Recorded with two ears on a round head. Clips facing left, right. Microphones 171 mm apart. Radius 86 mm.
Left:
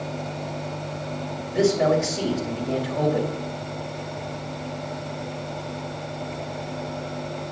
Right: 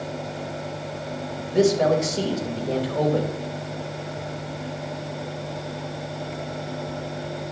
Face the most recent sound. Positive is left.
turn(degrees=-45)  # may be behind; listen again after turning